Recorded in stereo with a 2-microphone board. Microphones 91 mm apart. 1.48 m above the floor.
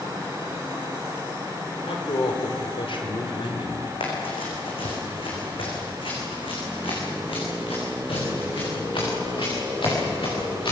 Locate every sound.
1.9 s a man speaking: 85° left, 4.5 m; by 3.9 s 60° left (ahead or behind), 3.5 m
4.0 s running footsteps: 75° left (ahead or behind), 7 m; by 10.7 s 65° left (ahead or behind), 11 m